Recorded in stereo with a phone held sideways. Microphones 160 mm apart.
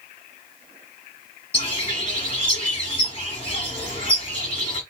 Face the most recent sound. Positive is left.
turn(degrees=35)  # may be behind; listen again after turning